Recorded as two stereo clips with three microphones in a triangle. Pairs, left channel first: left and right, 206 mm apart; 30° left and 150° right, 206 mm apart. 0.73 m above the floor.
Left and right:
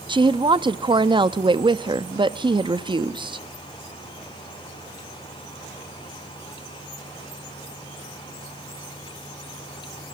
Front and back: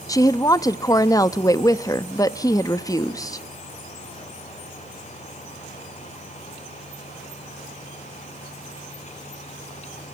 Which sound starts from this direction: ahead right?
A woman speaking, at 0.1 s.